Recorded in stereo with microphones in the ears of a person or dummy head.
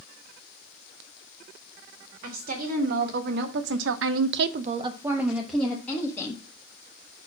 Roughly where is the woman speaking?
Right.